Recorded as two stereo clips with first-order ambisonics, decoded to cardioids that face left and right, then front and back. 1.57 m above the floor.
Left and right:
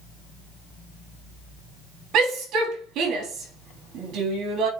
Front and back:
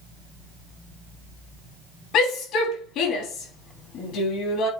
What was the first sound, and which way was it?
A shout, 45° right.